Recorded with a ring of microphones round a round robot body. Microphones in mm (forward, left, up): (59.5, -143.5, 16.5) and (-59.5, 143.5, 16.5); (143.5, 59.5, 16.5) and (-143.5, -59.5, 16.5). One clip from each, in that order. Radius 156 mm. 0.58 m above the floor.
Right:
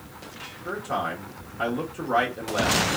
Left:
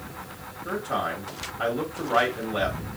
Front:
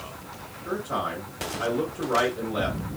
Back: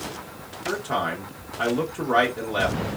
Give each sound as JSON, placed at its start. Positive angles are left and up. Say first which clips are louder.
{"t": 0.7, "sound": "a man speaking", "louder": "even, back 3 dB", "azimuth_deg": -130, "distance_m": 1.1}